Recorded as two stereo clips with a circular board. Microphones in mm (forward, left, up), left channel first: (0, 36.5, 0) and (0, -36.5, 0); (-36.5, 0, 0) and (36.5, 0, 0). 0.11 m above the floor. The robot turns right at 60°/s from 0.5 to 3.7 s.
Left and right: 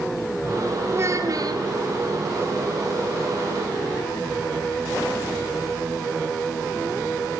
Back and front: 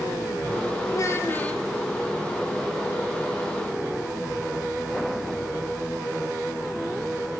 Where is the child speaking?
145° right, 2.5 m; by 1.6 s 100° right, 2.5 m.